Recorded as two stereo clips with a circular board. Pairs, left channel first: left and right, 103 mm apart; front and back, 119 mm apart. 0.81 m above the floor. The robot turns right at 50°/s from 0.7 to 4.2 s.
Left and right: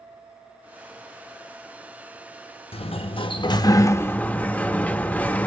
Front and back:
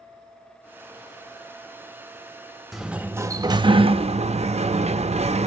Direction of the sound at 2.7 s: 90° left.